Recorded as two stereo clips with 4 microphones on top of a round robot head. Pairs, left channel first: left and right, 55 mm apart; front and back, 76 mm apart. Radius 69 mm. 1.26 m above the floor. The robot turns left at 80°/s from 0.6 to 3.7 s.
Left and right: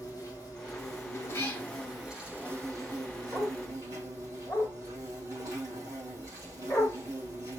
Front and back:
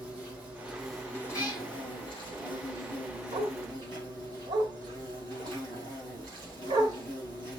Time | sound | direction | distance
0.0 | an insect | 110° left | 4.5 m
1.3 | a cat meowing | 45° left | 3.5 m
3.3 | a dog barking | 170° right | 1.6 m